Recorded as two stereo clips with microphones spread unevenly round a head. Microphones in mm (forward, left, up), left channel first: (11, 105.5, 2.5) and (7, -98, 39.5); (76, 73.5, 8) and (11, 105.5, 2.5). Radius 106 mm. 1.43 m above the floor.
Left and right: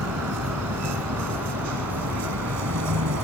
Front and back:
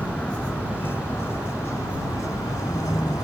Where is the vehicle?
110° right; by 3.2 s 95° right.